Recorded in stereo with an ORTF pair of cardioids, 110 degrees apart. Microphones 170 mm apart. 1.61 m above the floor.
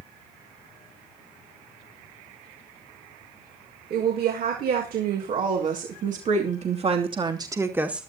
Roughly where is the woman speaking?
Right.